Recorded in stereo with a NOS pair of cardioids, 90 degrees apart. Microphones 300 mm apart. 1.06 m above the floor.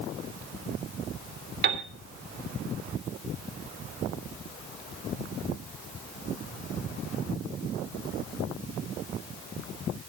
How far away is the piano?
About 3 m.